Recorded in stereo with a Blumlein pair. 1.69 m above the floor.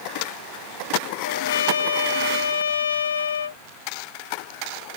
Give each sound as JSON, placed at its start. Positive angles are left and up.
{"t": 1.2, "sound": "a trumpet", "azimuth_deg": 70}